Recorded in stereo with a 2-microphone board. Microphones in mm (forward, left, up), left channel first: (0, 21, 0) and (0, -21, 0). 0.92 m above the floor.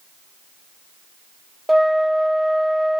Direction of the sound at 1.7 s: Centre (ahead or behind).